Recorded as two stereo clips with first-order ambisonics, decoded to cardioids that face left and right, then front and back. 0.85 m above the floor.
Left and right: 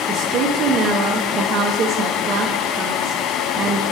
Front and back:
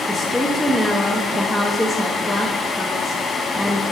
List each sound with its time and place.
0.1 s a woman speaking: 95° right, 0.5 m